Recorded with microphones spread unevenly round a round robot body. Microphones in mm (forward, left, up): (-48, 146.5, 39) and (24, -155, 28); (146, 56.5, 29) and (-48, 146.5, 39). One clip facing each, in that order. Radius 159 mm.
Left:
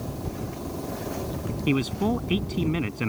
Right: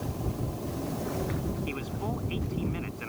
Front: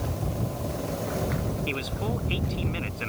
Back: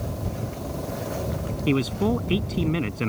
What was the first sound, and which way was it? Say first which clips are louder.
A man speaking: left 11 dB, back 9 dB; 130° left.